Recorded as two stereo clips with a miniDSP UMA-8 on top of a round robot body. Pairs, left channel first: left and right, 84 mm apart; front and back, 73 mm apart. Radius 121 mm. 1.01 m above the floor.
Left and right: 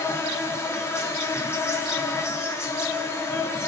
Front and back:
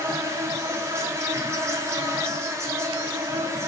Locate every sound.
0.0 s an insect: 140° left, 1.5 m